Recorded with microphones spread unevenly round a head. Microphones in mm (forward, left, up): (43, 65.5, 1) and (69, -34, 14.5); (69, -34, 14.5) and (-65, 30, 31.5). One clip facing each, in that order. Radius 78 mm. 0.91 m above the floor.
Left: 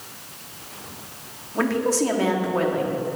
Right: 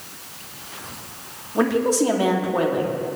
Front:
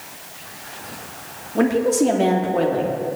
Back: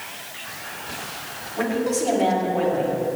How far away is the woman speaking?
About 1.6 m.